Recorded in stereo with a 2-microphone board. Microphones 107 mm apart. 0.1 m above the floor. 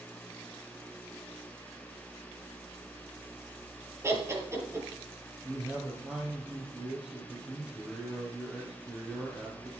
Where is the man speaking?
10° right (ahead or behind), 3 m.